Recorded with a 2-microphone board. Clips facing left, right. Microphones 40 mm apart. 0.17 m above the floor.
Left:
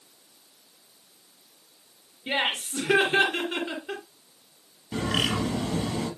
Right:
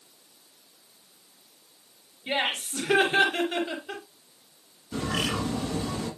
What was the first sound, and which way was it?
Laughter, 20° left (ahead or behind).